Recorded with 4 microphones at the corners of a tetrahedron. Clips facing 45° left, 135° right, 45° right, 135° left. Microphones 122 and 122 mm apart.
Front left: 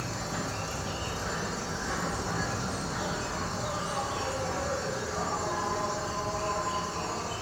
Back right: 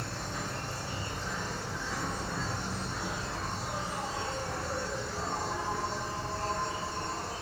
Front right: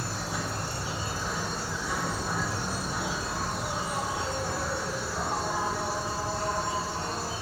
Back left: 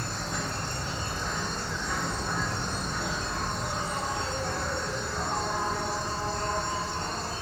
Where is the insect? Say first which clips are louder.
Front left 3 dB, even; 35° left, 0.7 m.